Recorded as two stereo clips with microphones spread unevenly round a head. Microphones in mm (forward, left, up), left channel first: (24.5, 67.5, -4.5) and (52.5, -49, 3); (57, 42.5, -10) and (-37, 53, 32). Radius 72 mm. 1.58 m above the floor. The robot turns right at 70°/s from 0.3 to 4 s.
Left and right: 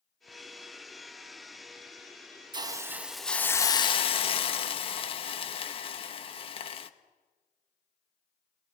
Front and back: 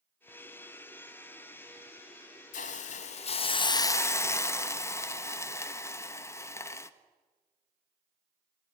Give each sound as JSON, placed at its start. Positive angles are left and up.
{"t": 2.5, "sound": "a hiss", "azimuth_deg": -35, "distance_m": 1.2}